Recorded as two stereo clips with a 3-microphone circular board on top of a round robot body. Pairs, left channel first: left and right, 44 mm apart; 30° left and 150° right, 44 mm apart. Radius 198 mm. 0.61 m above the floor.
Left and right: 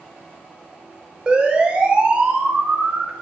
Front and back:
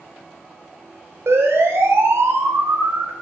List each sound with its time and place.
1.3 s a siren: 160° right, 5 m; by 3.1 s 155° right, 4.5 m